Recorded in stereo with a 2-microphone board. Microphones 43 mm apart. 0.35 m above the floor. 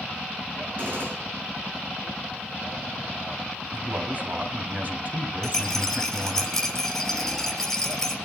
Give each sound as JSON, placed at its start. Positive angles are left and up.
{"t": 0.8, "sound": "a gunshot", "side_deg": -50, "distance_m": 4.5}
{"t": 3.7, "sound": "a man speaking", "side_deg": -35, "distance_m": 2.0}
{"t": 5.4, "sound": "a rattle", "side_deg": 5, "distance_m": 3.0}